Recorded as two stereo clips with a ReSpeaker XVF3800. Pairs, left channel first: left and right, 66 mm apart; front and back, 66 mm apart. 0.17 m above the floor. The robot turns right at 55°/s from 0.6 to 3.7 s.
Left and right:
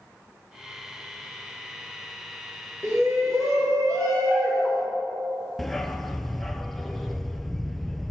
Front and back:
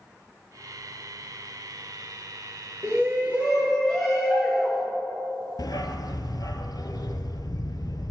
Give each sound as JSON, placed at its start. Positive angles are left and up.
{"t": 2.8, "sound": "a shout", "azimuth_deg": -135, "distance_m": 4.0}
{"t": 5.6, "sound": "a dog barking", "azimuth_deg": 5, "distance_m": 0.8}